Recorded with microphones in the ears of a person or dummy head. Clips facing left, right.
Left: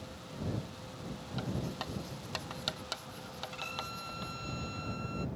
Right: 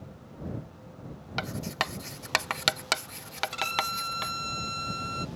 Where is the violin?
70° right (ahead or behind).